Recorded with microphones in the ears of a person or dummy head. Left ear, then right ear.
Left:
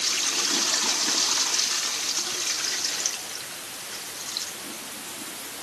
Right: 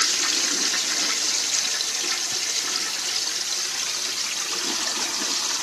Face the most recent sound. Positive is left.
No sound to turn to.